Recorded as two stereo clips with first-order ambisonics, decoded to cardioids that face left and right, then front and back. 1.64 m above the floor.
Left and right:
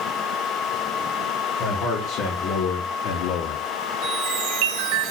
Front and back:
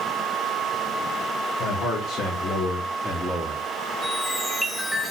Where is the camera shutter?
No camera shutter in this recording.